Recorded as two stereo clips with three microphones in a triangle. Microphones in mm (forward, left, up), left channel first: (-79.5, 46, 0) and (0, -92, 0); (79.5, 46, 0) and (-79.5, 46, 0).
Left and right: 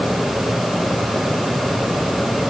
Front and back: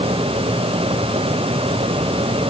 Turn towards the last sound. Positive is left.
No sound to turn to.